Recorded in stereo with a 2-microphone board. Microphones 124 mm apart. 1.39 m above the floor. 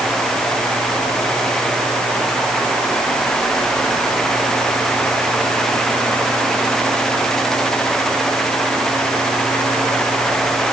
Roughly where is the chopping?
I don't hear chopping.